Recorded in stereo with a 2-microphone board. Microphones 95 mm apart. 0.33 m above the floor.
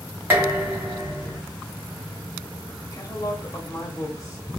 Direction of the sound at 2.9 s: 35° left (ahead or behind).